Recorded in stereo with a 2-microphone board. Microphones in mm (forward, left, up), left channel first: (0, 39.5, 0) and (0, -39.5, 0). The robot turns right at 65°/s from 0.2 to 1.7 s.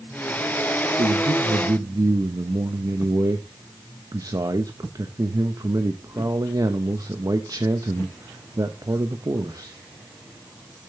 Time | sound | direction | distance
1.0 | a man speaking | 95° right | 1.0 m